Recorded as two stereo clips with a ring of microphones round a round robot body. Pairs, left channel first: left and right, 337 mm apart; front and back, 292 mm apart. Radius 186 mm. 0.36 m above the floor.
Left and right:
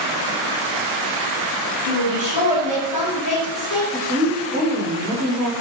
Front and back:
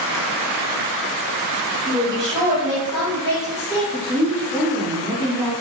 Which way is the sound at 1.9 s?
110° left.